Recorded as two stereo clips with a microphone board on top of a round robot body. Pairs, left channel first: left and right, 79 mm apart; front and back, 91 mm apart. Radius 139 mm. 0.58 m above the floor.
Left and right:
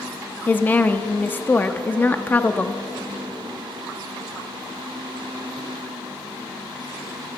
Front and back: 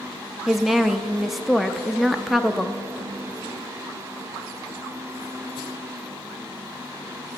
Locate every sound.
0.5 s a woman speaking: 95° left, 0.6 m